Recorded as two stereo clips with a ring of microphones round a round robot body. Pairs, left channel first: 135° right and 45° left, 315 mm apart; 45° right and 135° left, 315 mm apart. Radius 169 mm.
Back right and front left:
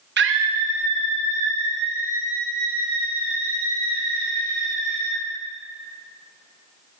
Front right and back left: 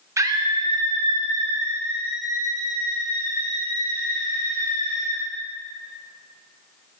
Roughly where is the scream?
Ahead left.